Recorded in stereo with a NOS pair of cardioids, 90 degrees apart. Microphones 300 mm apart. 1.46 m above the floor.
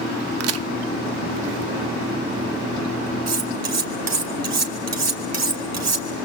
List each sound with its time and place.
0.4 s a crack: 55° right, 0.6 m
3.3 s cutlery clinking: 60° right, 3 m